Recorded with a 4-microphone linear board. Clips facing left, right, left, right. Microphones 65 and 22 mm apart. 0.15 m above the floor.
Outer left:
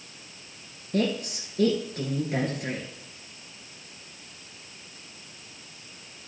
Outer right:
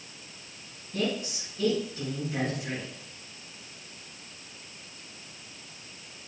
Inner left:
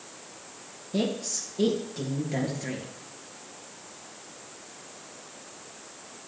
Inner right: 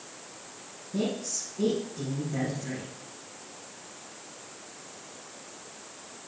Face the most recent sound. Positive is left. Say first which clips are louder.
# outer left 4 dB, inner left 2 dB
turn(degrees=60)  # may be behind; listen again after turning